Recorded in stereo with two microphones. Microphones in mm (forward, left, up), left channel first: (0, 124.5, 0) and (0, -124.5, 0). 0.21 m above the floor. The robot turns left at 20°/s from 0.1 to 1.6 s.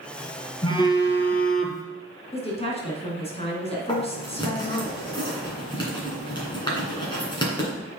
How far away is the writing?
About 2.5 m.